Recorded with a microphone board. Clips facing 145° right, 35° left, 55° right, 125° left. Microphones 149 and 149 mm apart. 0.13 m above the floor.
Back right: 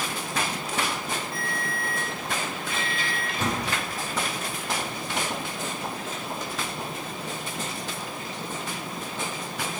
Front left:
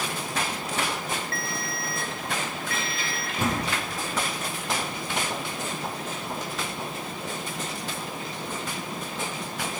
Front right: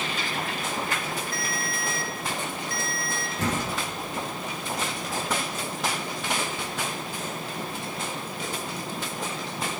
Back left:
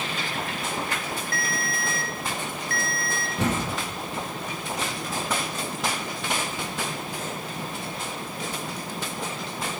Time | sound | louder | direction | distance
1.3 | a ringtone | back right 1 dB, back left 1 dB | 140° left | 1.3 m
3.4 | a door slam | front left 2 dB, back left 2 dB | 110° left | 4 m